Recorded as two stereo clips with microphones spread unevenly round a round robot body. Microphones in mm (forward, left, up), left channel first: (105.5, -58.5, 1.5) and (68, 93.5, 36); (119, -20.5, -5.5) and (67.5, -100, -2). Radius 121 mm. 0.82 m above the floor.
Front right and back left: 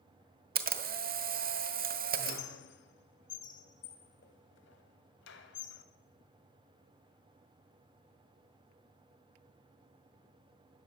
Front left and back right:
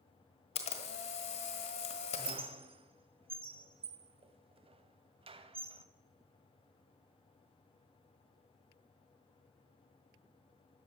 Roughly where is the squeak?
Right.